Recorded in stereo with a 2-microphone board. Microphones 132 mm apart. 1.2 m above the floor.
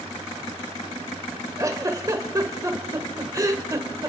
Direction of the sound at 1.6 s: 25° right (ahead or behind).